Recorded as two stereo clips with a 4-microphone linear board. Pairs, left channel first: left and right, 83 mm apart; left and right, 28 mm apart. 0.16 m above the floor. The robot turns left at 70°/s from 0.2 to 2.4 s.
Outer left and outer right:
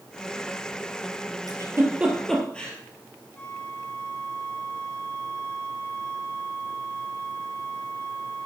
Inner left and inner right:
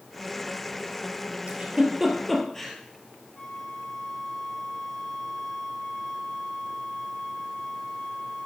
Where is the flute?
15° left (ahead or behind), 2.0 m.